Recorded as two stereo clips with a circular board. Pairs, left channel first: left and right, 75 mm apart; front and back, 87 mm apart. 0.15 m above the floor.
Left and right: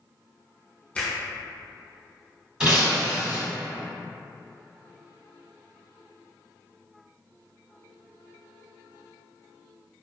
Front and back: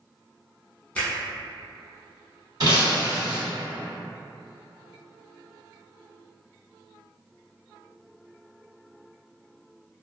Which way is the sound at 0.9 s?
50° left.